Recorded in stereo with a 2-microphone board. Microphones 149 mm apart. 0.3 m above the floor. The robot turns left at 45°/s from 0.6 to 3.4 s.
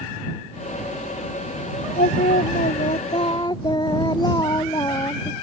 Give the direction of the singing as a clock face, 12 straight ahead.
9 o'clock.